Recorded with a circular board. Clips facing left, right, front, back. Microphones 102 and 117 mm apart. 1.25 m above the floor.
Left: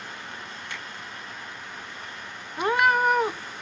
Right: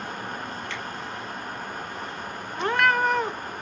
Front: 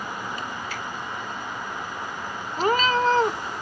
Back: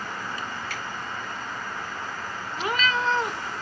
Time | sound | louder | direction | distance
0.7 | a finger snap | right 4 dB, front 2 dB | 160° left | 4.5 m
2.6 | a cat meowing | left 1 dB, front 5 dB | 15° left | 0.6 m